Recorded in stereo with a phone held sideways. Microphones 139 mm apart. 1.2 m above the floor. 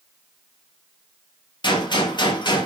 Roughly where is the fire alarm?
I don't hear a fire alarm.